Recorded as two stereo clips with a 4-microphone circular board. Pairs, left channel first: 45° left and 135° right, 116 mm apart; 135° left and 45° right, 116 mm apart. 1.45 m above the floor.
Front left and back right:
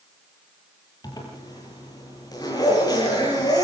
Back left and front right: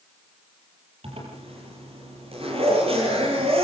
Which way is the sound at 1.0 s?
10° right.